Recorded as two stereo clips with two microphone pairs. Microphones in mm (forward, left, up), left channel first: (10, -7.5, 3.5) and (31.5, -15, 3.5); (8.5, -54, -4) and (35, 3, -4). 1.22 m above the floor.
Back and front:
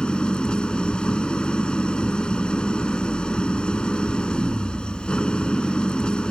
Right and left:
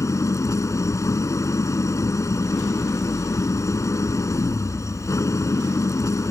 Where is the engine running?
150° right.